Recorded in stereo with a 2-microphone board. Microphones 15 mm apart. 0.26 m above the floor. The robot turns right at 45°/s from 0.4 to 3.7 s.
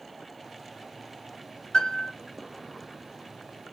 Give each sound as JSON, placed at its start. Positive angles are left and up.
{"t": 1.7, "sound": "a piano", "side_deg": 60, "distance_m": 2.0}